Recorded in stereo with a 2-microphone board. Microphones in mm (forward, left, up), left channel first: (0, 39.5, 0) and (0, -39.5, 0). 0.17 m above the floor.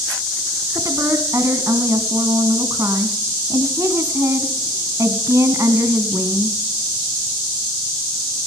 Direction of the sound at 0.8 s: 40° right (ahead or behind).